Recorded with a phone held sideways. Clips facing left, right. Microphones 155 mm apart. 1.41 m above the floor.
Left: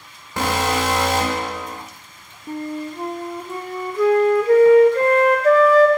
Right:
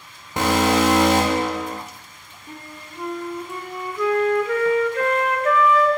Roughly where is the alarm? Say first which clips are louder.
Right 3 dB; centre.